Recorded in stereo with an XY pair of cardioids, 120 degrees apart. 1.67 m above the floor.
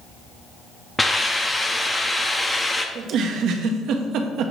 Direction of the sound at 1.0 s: 15° left.